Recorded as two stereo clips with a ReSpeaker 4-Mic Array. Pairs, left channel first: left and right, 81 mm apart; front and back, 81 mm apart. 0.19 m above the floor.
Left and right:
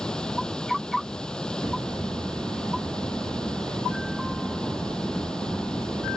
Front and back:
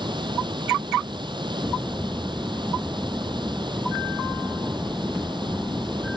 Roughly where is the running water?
Behind.